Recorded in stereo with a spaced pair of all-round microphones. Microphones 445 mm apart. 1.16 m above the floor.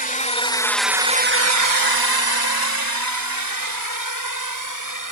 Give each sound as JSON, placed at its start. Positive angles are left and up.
{"t": 0.0, "sound": "a drone", "side_deg": 20}